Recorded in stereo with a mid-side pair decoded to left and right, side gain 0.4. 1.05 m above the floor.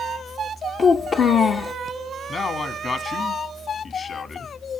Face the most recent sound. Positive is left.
turn(degrees=50)